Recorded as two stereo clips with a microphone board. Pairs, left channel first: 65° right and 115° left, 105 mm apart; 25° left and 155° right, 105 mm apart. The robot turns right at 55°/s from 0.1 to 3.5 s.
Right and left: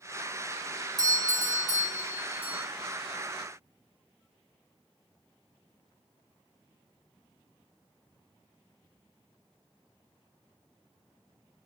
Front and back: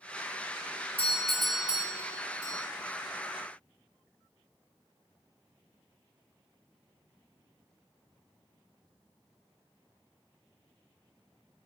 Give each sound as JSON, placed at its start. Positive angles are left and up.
{"t": 1.0, "sound": "a doorbell", "azimuth_deg": 90, "distance_m": 1.5}